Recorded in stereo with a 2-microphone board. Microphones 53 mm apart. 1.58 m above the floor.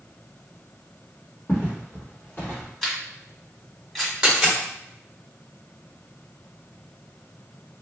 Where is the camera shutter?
5° left (ahead or behind), 1.6 m.